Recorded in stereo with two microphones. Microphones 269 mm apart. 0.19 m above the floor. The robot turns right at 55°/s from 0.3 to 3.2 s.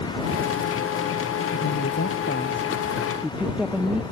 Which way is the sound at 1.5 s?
90° left.